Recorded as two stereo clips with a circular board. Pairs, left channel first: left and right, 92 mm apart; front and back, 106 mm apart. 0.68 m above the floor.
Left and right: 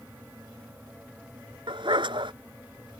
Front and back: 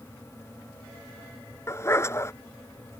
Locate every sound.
1.7 s a dog barking: 60° right